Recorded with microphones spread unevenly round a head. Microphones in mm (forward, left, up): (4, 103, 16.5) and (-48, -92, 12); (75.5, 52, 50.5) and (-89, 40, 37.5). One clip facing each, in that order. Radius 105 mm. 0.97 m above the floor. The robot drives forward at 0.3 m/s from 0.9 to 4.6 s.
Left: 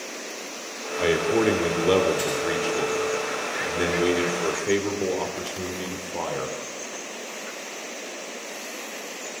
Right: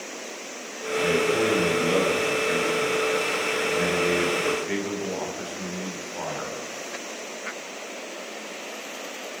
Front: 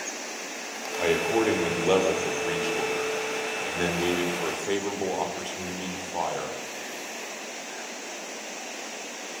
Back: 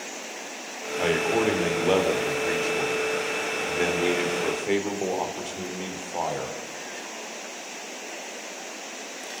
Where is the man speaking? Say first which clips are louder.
Left 2 dB, even; 90° left, 4 m; by 6.5 s 105° left, 4.5 m.